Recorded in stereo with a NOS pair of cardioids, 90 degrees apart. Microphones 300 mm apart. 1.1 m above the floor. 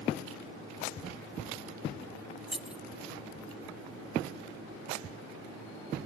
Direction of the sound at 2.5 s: 5° right.